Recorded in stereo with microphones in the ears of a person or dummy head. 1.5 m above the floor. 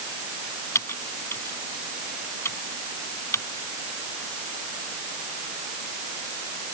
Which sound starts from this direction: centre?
Typing on a keyboard, at 0.8 s.